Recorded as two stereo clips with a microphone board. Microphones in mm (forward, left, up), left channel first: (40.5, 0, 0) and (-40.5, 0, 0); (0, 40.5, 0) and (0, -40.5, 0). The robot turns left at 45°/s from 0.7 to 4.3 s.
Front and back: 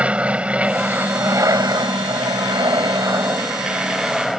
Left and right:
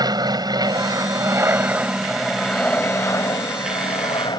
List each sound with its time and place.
0.0 s an aircraft: 110° right; by 4.4 s 90° left